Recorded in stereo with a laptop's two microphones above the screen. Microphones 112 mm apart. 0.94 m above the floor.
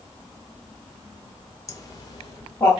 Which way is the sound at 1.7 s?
30° left (ahead or behind).